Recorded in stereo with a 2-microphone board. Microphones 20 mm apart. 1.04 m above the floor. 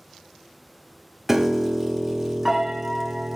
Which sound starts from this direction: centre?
A piano, at 1.3 s.